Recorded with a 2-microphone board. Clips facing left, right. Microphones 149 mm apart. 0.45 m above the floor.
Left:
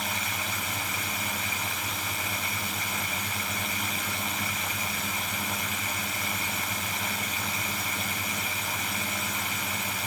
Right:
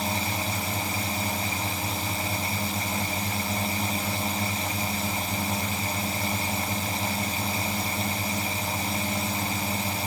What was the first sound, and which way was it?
A drone, 35° right (ahead or behind).